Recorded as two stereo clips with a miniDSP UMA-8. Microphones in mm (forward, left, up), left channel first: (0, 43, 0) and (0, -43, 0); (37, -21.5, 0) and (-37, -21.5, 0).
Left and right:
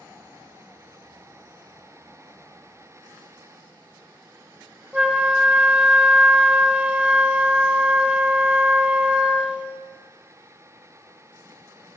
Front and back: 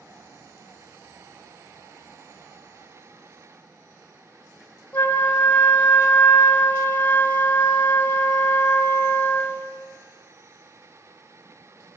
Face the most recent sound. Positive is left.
turn(degrees=-35)